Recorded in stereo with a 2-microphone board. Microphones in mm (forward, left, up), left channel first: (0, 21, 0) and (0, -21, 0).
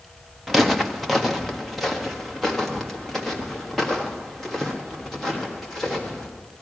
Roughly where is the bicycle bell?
No bicycle bell in this recording.